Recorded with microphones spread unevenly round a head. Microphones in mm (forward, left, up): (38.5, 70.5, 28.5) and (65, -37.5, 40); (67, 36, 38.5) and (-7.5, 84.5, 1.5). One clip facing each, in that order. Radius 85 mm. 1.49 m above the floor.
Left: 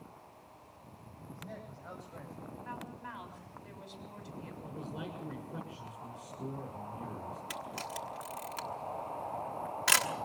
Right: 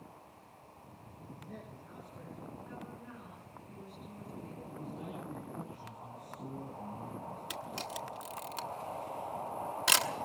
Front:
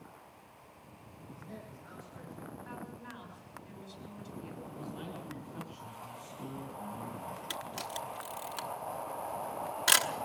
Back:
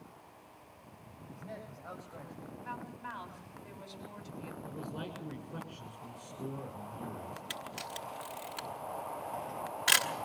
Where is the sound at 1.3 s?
135° left, 9.5 m.